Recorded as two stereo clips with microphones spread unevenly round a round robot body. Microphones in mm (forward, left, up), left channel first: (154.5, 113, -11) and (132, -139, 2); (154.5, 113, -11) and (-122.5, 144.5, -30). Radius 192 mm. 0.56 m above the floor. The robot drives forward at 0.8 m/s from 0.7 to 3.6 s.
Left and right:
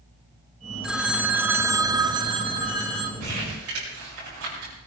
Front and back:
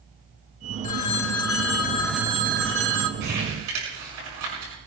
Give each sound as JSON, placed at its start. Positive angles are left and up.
{"t": 0.8, "sound": "a phone ringing", "azimuth_deg": -5, "distance_m": 1.1}
{"t": 3.2, "sound": "crumpling", "azimuth_deg": -150, "distance_m": 6.0}